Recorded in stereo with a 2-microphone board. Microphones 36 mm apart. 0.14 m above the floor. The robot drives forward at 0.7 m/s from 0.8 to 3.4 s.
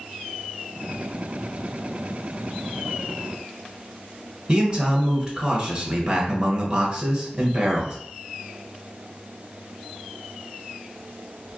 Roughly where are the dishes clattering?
I don't hear dishes clattering.